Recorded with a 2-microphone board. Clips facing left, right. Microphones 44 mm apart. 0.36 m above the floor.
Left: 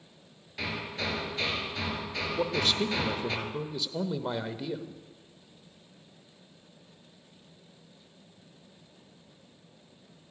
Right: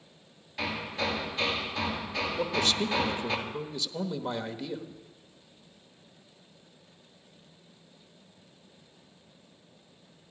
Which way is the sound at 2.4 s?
5° left (ahead or behind).